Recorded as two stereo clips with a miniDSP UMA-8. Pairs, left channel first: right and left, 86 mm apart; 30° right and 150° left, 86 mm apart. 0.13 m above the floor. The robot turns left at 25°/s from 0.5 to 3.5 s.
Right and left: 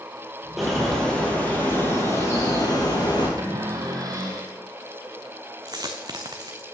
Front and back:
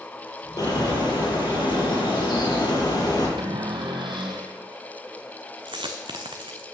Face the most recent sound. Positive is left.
turn(degrees=130)